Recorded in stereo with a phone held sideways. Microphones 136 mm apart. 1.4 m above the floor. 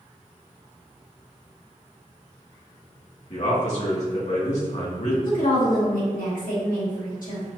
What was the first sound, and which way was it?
A man speaking, 60° left (ahead or behind).